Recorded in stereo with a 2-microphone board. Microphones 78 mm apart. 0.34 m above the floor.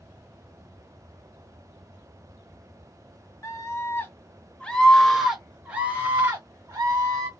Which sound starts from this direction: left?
A scream, at 3.4 s.